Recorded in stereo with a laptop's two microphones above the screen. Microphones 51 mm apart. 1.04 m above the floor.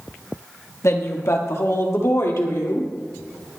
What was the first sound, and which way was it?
A woman speaking, 65° left (ahead or behind).